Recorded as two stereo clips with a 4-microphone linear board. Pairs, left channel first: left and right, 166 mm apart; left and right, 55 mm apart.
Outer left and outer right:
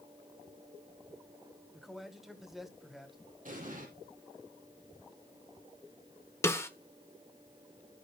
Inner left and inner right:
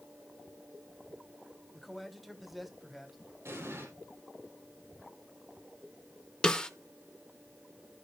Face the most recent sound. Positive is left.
turn(degrees=15)  # may be behind; listen again after turning